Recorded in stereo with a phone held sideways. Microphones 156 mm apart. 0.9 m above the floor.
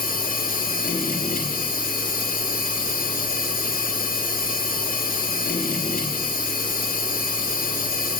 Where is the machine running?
75° left (ahead or behind), 1.6 m.